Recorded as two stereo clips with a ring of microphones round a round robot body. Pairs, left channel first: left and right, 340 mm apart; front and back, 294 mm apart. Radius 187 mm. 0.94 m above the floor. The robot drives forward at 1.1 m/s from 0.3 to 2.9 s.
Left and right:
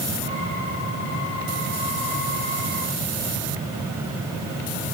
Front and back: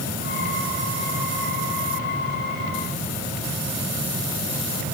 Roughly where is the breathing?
No breathing in this recording.